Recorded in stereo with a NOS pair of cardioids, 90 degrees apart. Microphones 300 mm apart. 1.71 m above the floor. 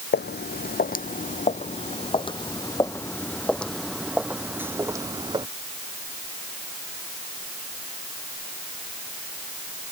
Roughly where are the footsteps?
Ahead left.